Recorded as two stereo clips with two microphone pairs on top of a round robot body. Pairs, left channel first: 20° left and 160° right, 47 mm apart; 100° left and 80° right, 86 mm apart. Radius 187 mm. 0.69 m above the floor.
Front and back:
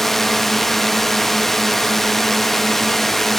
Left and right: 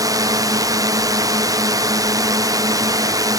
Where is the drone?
70° right.